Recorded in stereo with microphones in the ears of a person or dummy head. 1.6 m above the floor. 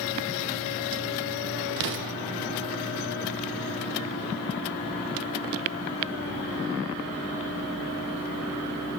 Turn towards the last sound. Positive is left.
turn(degrees=-60)  # may be behind; listen again after turning